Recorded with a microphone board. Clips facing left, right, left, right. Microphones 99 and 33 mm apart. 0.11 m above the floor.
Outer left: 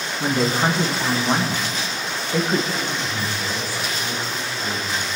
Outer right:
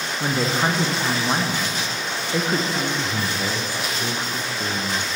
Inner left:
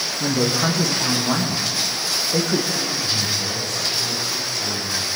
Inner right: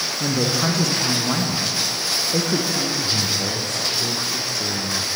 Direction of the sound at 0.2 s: Centre (ahead or behind).